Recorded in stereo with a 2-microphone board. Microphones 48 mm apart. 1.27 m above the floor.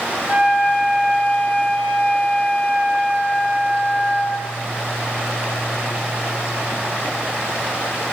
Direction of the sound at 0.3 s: 40° right (ahead or behind).